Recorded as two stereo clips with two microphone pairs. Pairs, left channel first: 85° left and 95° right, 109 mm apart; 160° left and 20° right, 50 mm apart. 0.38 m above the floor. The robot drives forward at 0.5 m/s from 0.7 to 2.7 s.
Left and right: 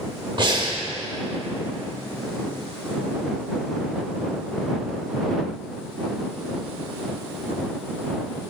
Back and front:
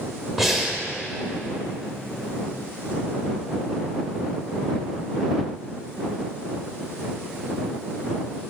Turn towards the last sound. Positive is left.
turn(degrees=-155)